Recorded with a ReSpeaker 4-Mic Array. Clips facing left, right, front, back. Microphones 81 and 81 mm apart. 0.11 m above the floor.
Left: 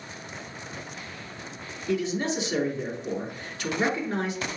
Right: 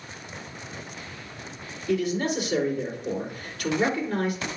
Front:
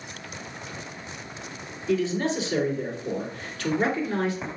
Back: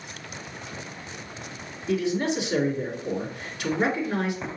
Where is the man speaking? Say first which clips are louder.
Right 2 dB, even; 120° left, 2.0 m.